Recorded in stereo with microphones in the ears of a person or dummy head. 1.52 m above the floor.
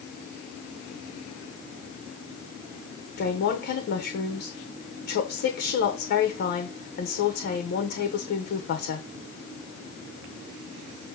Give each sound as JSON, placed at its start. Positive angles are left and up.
{"t": 3.2, "sound": "a woman speaking", "side_deg": 60, "distance_m": 1.0}